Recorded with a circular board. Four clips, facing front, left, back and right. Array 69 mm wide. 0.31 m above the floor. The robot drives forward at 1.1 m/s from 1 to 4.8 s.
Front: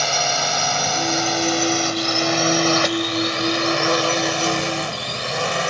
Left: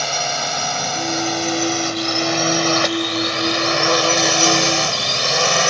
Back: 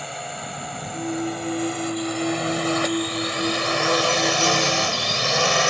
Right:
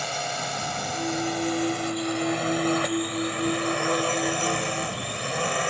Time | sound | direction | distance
0.0 | a drone | 35° left | ?